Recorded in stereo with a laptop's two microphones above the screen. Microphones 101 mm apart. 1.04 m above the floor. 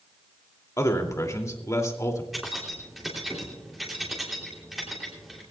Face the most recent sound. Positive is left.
turn(degrees=0)  # may be behind; listen again after turning